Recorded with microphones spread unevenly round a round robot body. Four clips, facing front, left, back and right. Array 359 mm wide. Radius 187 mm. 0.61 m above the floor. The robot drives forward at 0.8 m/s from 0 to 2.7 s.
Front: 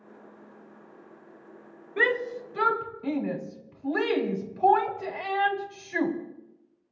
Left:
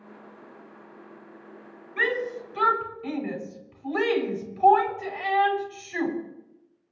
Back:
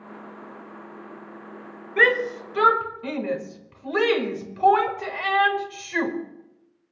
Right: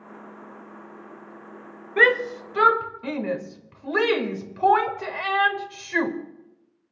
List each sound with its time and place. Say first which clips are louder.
2.0 s a shout: right 7 dB, back 5 dB; 110° right, 2.5 m; by 6.1 s 125° right, 2.5 m